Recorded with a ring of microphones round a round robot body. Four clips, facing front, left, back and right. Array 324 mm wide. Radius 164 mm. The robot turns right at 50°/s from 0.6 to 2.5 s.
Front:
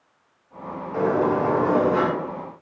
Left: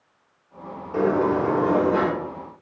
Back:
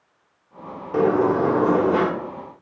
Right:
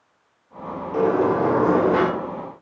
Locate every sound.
0.9 s a sliding door: 175° right, 0.9 m; by 2.1 s 120° right, 0.9 m